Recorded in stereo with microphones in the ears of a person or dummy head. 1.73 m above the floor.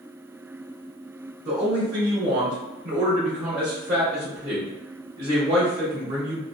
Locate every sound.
1.4 s a man speaking: 30° right (ahead or behind), 1.1 m